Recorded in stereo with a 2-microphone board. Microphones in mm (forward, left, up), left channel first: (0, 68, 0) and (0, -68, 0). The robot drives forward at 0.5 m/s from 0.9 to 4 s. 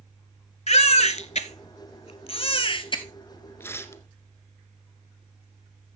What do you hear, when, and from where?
0.7 s a baby crying: 55° left (ahead or behind), 0.9 m; by 3.0 s 35° left (ahead or behind), 1.2 m
3.6 s tearing paper: 15° left (ahead or behind), 1.2 m; by 4.0 s 20° left (ahead or behind), 1.1 m